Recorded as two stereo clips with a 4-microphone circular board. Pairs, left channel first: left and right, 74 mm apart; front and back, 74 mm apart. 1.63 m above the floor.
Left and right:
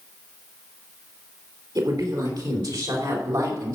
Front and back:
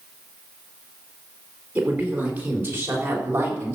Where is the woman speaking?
110° right, 4 m; by 3.8 s 125° right, 3 m.